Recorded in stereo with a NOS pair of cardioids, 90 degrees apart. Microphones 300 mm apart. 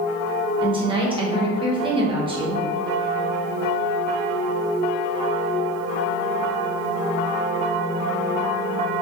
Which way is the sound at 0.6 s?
15° right.